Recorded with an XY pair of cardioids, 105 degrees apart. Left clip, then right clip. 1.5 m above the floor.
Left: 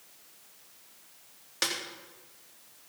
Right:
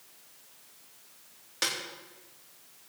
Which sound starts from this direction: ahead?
A snare drum, at 1.6 s.